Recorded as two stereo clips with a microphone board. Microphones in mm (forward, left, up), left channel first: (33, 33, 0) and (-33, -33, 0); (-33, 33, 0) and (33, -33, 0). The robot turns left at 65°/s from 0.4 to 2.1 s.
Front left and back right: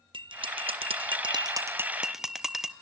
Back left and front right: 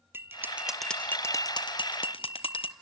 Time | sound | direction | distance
0.1 | a bell | 110° right | 0.8 m